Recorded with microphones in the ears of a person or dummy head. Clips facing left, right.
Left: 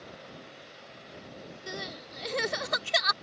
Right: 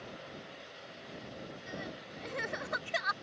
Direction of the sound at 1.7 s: 60° left (ahead or behind).